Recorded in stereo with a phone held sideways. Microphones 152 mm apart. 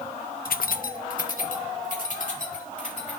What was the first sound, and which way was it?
Keys jangling, 70° left (ahead or behind).